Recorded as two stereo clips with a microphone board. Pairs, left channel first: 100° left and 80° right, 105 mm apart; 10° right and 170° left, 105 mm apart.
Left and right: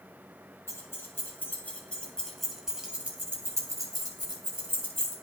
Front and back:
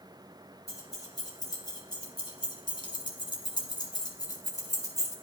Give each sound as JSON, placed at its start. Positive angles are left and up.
{"t": 0.7, "sound": "keys jangling", "azimuth_deg": 40, "distance_m": 2.5}